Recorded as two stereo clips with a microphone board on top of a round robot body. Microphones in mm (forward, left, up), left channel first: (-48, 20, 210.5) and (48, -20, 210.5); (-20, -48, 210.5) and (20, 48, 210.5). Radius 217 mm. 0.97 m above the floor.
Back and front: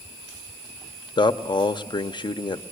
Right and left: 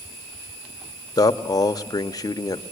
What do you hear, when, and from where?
1.2 s a man speaking: 165° right, 1.0 m